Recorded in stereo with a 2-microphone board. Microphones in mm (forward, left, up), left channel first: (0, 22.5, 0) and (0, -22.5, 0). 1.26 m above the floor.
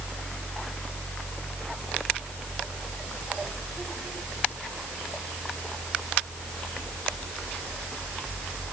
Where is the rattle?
I don't hear a rattle.